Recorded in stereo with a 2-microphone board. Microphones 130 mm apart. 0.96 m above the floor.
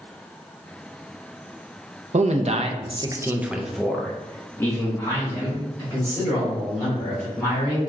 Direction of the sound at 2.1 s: 60° right (ahead or behind).